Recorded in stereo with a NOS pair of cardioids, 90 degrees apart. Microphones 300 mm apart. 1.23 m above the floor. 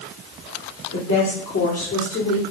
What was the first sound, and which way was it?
A woman speaking, 65° left.